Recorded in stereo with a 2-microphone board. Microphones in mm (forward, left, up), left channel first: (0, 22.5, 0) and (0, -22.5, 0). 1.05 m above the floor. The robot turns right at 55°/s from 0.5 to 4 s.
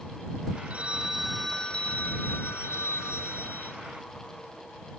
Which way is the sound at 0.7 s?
35° right.